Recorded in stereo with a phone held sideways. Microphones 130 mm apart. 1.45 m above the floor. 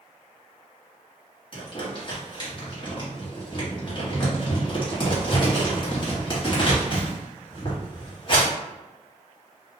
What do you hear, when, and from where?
1.5 s crumpling: 35° left (ahead or behind), 1.1 m